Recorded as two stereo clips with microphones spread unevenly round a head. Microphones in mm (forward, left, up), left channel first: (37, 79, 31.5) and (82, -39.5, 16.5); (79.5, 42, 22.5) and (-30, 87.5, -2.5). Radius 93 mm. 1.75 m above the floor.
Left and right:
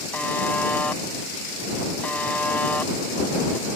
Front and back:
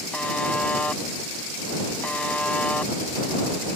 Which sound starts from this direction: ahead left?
A buzzer, at 0.1 s.